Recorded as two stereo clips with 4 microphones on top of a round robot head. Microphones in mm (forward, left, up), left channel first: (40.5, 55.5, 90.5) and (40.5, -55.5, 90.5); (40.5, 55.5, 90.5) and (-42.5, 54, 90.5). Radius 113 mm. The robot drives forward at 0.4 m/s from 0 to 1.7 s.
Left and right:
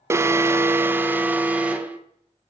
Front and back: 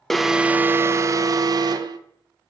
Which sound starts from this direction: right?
An alarm, at 0.1 s.